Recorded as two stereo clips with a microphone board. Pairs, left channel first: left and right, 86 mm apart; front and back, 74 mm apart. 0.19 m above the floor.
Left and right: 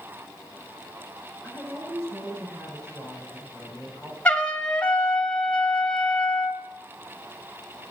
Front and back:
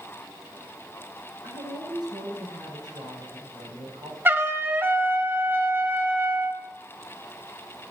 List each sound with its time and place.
1.4 s a woman speaking: 145° right, 5 m
4.2 s a trumpet: 150° left, 1.0 m